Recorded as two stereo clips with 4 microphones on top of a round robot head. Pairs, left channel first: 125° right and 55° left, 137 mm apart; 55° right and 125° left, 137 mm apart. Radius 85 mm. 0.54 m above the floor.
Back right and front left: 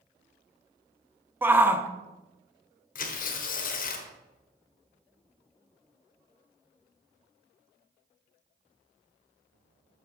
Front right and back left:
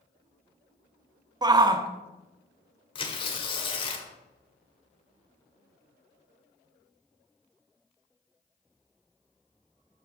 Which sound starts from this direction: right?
Tearing paper, at 3.0 s.